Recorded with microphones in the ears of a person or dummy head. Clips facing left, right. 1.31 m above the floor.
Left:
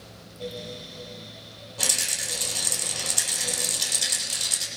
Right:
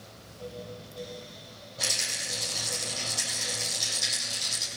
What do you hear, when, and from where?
1.8 s a rattle: 70° left (ahead or behind), 6.5 m